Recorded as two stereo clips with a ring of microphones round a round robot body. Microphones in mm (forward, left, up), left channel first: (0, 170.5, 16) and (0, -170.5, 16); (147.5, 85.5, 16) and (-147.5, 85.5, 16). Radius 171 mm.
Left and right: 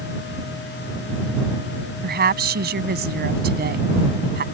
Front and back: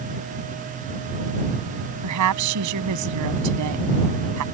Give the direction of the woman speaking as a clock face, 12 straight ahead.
5 o'clock.